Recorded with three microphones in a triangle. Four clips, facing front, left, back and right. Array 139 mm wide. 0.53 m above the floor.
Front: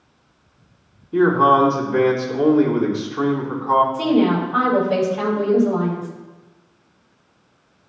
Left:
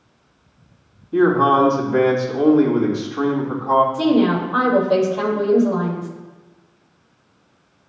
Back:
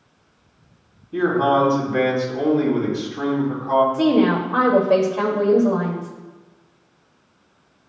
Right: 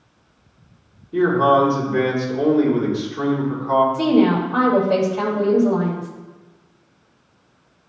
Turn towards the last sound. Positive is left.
turn(degrees=160)